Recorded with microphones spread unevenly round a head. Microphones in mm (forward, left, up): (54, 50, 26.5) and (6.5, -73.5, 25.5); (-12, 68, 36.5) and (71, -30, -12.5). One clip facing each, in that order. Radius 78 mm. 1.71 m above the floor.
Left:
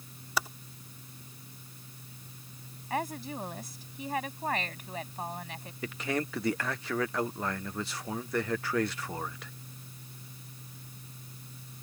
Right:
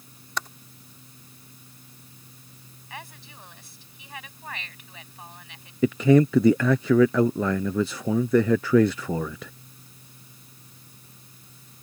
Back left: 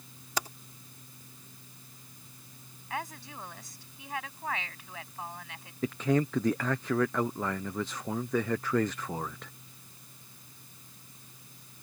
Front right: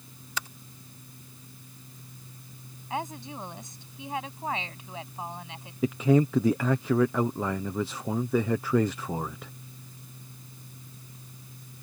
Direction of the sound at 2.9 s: 20° left.